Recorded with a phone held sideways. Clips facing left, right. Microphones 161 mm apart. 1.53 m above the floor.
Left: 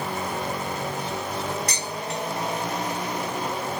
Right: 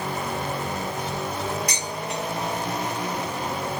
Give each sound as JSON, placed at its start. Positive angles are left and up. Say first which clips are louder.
{"t": 1.7, "sound": "dishes clattering", "louder": "even", "side_deg": -15, "distance_m": 3.0}